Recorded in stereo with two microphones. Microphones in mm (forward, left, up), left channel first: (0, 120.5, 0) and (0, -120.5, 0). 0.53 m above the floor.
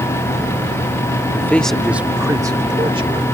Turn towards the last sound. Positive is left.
turn(degrees=-25)  # may be behind; listen again after turning